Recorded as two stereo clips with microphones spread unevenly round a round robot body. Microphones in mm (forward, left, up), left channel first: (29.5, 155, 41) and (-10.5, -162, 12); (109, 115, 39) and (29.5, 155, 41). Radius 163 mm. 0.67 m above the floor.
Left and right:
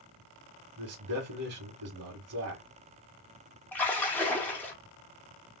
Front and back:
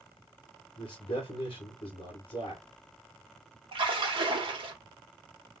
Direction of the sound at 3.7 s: 170° left.